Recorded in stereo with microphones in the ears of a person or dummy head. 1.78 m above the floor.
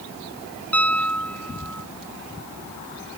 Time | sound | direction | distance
0.7 | a piano | 5° left (ahead or behind) | ?